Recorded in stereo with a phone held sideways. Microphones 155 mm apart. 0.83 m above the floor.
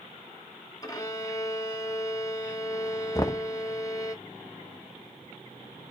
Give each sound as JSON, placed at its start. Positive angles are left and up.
{"t": 0.8, "sound": "a violin", "side_deg": 25, "distance_m": 1.3}
{"t": 3.1, "sound": "knocking", "side_deg": 25, "distance_m": 0.7}